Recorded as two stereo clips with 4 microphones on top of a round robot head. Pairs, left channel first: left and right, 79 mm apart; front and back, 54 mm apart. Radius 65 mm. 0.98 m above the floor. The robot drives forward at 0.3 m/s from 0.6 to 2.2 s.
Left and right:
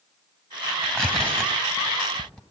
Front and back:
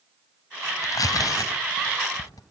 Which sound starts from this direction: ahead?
Tearing paper, at 0.8 s.